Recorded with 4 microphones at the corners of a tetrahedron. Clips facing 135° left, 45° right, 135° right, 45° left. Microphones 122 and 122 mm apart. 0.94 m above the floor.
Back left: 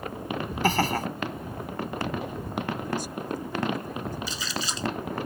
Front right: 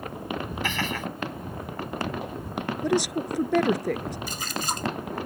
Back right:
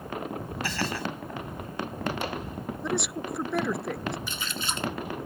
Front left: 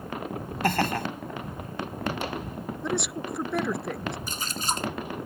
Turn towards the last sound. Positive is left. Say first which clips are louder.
# front right 2 dB, front left 3 dB
turn(degrees=-5)